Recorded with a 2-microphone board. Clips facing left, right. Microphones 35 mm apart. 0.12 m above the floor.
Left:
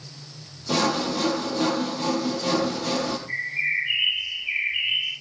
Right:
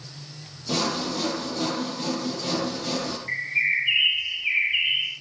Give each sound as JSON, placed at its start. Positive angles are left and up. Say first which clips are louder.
{"t": 0.7, "sound": "sawing", "louder": "left 3 dB", "side_deg": 15, "distance_m": 4.0}
{"t": 3.3, "sound": "a bird", "louder": "right 5 dB", "side_deg": -65, "distance_m": 9.0}